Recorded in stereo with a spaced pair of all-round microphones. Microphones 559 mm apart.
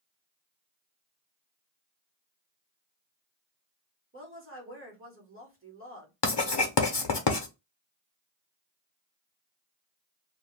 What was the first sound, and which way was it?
A woman speaking, 20° right (ahead or behind).